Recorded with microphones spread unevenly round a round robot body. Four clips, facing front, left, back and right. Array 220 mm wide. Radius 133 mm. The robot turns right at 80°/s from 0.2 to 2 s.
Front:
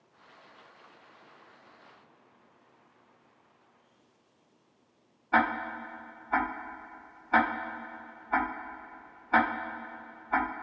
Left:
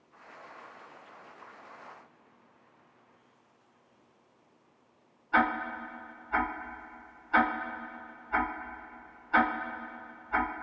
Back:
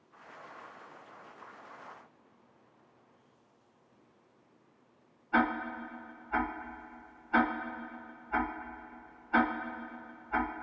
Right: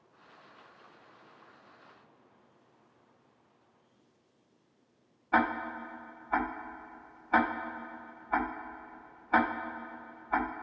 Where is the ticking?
45° right, 1.2 m.